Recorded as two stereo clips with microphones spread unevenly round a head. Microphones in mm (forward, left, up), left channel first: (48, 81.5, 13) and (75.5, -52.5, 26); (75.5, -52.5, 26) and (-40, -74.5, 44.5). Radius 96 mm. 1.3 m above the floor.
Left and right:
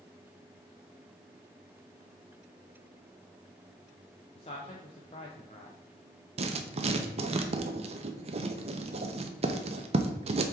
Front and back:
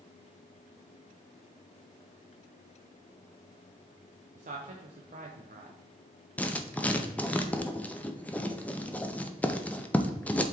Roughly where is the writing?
Right.